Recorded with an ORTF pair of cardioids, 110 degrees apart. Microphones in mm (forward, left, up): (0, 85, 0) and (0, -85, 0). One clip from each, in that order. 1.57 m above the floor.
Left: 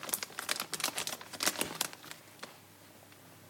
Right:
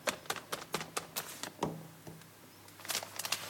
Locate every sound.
Only background noise.